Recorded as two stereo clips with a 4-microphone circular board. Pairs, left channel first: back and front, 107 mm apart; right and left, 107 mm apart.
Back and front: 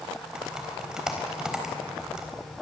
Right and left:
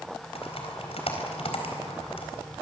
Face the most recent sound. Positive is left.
turn(degrees=-85)